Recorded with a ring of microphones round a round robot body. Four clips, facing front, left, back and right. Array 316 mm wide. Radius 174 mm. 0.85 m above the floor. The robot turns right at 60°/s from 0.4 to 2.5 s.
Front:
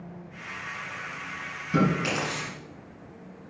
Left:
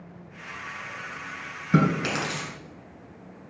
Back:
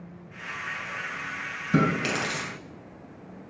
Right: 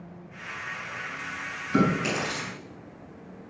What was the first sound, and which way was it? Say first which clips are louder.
Chewing: left 1 dB, even; 105° left.